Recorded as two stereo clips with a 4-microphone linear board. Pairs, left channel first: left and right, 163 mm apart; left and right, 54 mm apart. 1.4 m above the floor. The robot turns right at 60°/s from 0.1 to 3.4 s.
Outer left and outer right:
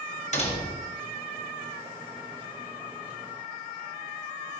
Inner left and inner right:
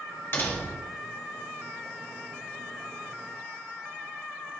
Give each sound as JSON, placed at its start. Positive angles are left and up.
{"t": 0.3, "sound": "a door slam", "azimuth_deg": 135, "distance_m": 1.5}